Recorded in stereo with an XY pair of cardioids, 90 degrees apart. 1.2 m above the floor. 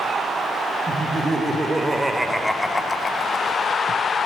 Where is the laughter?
30° right, 1.9 m; by 3.7 s 75° left, 1.0 m.